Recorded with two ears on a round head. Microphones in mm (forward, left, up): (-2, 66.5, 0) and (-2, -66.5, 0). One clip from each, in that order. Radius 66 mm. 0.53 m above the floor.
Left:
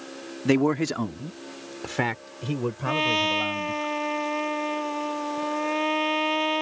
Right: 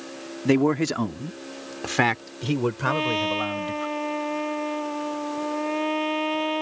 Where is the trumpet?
30° left (ahead or behind).